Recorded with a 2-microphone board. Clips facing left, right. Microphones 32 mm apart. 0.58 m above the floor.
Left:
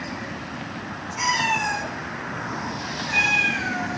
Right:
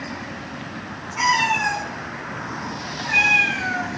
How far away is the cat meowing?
About 3.5 m.